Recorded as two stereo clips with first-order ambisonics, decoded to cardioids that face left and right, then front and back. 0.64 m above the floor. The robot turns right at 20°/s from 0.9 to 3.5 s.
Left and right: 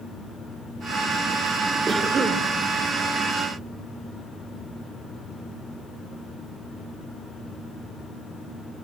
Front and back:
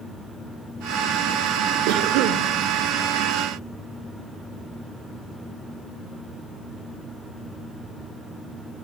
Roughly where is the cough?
Behind.